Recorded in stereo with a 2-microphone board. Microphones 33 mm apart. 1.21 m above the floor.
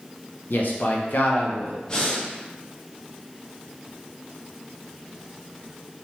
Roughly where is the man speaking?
Left.